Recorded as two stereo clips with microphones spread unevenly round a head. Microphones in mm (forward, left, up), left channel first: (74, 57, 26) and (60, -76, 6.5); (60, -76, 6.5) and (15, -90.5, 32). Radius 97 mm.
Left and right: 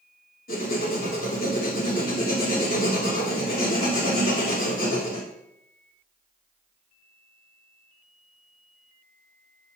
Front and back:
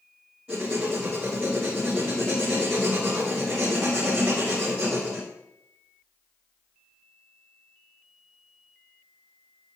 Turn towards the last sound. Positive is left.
turn(degrees=105)